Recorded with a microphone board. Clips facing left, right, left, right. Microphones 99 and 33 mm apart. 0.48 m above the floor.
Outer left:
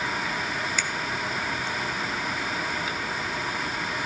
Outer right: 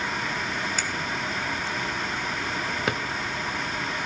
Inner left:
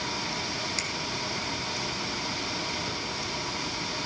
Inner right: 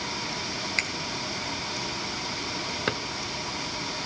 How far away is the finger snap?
About 1.1 m.